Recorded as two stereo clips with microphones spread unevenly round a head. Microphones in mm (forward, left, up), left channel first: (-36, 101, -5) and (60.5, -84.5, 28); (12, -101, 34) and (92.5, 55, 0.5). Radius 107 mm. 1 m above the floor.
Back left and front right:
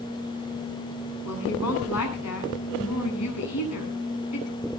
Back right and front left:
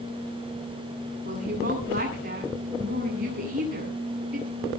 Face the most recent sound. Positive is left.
turn(degrees=115)